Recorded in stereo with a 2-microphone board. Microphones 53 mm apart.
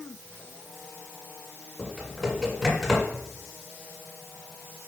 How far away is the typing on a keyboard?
About 1.5 m.